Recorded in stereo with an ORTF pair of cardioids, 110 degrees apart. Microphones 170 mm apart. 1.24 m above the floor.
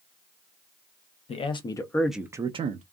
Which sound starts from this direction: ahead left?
A man speaking, at 1.3 s.